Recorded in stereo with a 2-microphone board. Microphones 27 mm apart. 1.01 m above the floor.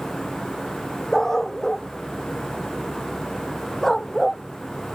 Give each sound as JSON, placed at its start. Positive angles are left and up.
{"t": 1.1, "sound": "a dog barking", "side_deg": 20}